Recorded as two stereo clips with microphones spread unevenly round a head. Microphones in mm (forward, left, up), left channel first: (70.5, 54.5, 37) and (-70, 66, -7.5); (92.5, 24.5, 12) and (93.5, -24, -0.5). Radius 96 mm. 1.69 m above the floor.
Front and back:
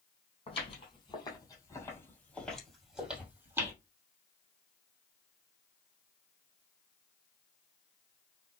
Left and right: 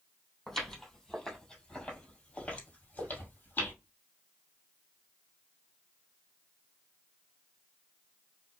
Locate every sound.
0.5 s footsteps: 15° left, 3 m; by 3.7 s 95° left, 2.5 m